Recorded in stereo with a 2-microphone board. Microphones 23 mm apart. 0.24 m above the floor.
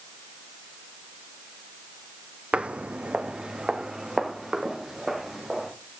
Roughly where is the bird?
No bird in this recording.